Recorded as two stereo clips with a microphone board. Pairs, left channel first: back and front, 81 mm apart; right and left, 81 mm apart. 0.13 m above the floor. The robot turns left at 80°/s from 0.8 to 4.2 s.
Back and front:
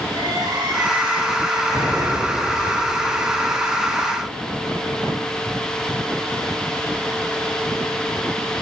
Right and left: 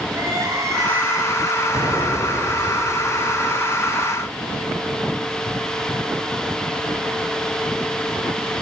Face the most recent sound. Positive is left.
turn(degrees=-65)